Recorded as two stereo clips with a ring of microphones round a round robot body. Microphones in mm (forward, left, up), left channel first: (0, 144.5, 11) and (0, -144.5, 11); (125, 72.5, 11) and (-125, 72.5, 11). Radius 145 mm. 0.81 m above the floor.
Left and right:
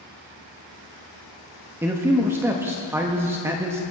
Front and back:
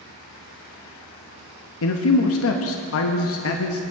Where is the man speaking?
10° right, 0.8 m.